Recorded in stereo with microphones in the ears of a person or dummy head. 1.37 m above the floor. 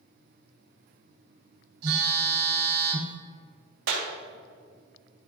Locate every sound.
1.8 s a phone buzzing: 80° right, 3.5 m
3.9 s a clap: 85° right, 3 m